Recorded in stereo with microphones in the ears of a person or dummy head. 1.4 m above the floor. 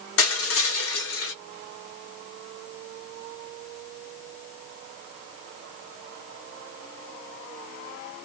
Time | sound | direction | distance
0.2 | crushing | 70° left (ahead or behind) | 1.0 m